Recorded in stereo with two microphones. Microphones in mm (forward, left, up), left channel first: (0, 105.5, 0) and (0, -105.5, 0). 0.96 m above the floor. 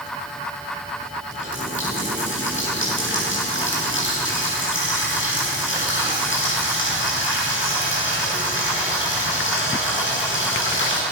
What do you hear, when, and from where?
1.3 s a running tap: 65° left (ahead or behind), 8.5 m